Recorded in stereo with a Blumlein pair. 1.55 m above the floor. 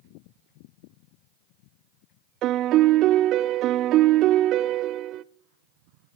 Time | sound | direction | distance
2.4 | a piano | 35° right | 0.5 m